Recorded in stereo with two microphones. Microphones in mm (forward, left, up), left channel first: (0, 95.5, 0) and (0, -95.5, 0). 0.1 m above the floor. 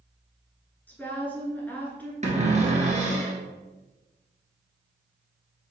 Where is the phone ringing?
No phone ringing in this recording.